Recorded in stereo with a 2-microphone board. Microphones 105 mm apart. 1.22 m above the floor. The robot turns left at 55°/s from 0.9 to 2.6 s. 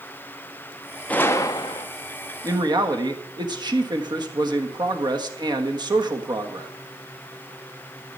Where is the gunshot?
165° left, 0.7 m; by 1.9 s 125° left, 0.7 m.